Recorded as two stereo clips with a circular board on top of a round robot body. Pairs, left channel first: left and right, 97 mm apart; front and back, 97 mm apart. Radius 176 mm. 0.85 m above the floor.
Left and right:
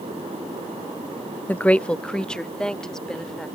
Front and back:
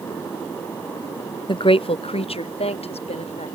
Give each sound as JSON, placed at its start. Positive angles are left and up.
{"t": 1.5, "sound": "a woman speaking", "azimuth_deg": 20}